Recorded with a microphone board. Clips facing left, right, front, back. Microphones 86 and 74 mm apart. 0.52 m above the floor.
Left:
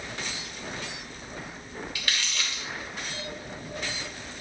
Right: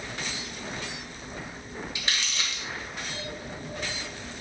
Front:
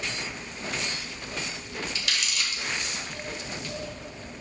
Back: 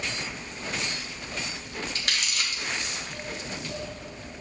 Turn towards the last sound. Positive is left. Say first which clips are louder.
# even, back 1 dB
turn(degrees=-150)